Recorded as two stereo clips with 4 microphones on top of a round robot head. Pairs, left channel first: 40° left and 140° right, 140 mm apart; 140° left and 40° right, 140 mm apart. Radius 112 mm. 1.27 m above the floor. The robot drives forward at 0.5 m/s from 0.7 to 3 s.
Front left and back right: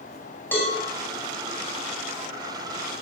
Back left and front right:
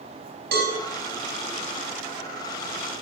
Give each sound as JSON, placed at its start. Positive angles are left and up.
{"t": 0.5, "sound": "a cowbell", "azimuth_deg": -40, "distance_m": 5.5}